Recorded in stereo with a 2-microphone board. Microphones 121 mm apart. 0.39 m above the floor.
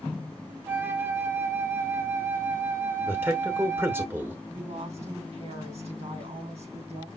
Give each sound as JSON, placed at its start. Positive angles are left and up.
{"t": 0.7, "sound": "a flute", "side_deg": -20, "distance_m": 0.7}
{"t": 3.1, "sound": "a man speaking", "side_deg": -20, "distance_m": 1.0}
{"t": 4.5, "sound": "a woman speaking", "side_deg": -65, "distance_m": 3.0}